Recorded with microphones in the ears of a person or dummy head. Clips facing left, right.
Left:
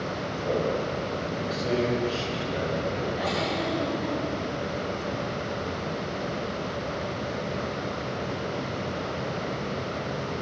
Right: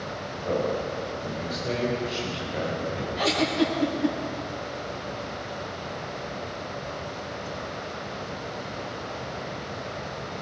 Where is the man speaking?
10° left (ahead or behind), 7 m.